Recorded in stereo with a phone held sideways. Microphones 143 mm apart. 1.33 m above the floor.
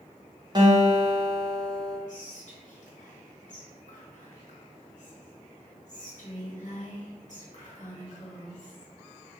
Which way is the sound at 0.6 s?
30° right (ahead or behind).